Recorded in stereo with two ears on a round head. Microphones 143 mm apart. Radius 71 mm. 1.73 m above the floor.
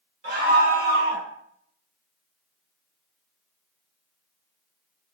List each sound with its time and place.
0.2 s a scream: 55° right (ahead or behind), 2.5 m; by 1.3 s 70° right (ahead or behind), 2.5 m